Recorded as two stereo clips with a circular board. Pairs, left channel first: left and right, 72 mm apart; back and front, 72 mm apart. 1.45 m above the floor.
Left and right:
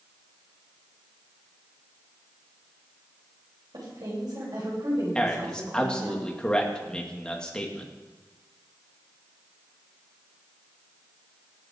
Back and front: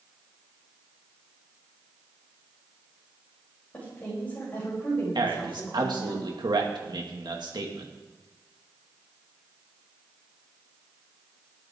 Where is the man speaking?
10° left, 2.5 m.